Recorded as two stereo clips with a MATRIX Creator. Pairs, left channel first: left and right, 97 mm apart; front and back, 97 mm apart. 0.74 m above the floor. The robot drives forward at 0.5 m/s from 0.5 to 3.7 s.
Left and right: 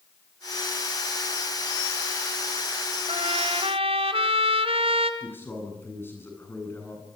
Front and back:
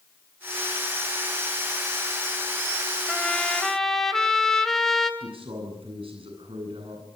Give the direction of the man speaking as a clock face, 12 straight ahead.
7 o'clock.